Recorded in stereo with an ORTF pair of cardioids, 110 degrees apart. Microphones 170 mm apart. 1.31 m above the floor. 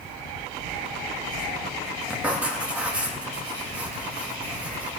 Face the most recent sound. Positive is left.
turn(degrees=-5)